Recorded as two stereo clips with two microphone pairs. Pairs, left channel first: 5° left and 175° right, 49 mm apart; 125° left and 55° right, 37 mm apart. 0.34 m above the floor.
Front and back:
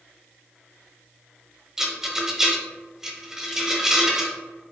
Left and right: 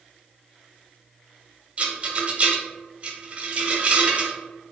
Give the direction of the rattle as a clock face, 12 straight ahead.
3 o'clock.